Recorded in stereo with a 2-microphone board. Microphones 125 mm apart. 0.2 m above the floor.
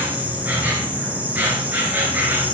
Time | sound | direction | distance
0.0 | an insect | 15° right (ahead or behind) | 3.5 m